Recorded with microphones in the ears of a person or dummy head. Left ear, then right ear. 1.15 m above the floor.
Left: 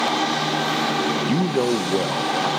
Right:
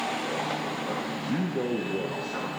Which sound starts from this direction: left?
A man speaking, at 1.3 s.